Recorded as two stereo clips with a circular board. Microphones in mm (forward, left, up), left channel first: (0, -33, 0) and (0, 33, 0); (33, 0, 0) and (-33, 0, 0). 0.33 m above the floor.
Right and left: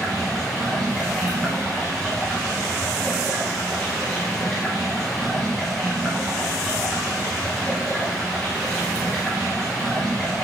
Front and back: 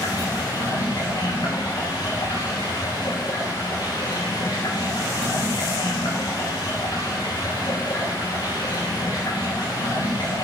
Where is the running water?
15° right, 4.5 m.